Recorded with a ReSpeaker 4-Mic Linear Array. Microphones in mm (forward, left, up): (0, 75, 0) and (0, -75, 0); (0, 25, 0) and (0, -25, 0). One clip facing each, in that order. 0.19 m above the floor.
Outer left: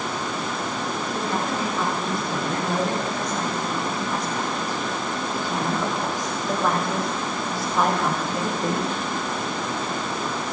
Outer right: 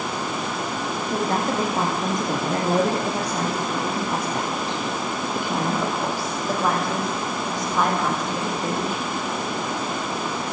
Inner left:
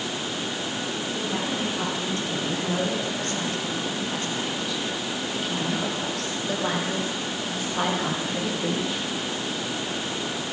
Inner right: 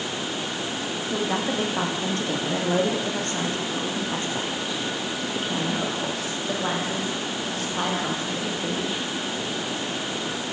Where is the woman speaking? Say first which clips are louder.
Outer right 5 dB, inner right 5 dB; 50° right (ahead or behind), 8.5 m; by 8.9 s 15° left (ahead or behind), 7.5 m.